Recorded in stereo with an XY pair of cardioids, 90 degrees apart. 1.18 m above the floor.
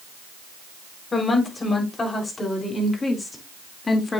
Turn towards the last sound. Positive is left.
turn(degrees=35)